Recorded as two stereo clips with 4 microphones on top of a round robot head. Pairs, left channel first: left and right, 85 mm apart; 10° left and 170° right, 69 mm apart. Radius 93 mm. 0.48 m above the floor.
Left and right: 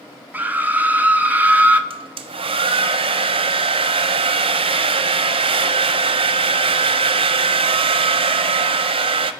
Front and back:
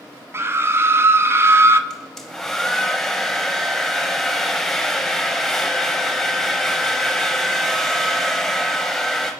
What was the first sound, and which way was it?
A scream, 150° right.